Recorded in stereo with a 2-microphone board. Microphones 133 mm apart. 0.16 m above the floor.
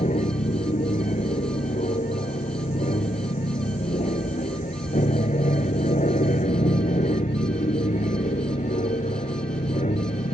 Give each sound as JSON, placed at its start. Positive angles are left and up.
{"t": 0.0, "sound": "an aircraft", "side_deg": 55}